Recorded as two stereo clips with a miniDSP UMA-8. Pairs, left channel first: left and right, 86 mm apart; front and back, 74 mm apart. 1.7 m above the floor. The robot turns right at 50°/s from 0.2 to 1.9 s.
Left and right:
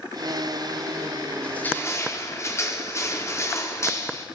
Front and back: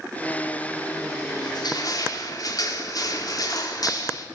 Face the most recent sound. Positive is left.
turn(degrees=30)